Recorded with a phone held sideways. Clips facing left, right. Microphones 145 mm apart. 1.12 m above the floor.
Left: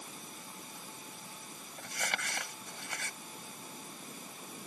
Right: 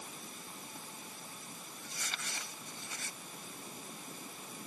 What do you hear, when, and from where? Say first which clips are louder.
1.8 s crumpling: left 9 dB; 70° left (ahead or behind)